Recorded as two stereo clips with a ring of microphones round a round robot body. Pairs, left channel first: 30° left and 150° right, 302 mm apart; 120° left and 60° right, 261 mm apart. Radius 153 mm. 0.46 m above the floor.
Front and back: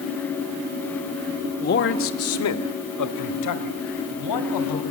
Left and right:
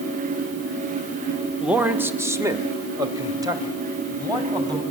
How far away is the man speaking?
About 1.4 m.